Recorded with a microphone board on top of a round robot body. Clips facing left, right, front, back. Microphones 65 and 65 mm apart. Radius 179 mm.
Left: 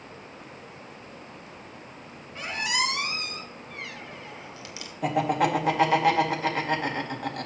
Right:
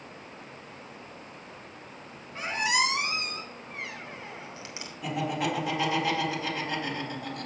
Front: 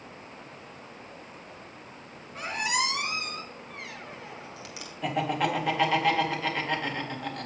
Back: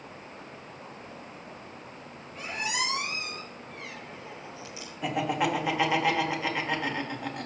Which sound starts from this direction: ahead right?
A squeak, at 2.4 s.